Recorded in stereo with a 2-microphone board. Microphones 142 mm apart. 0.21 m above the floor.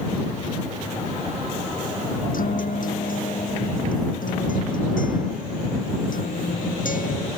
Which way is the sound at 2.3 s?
70° left (ahead or behind).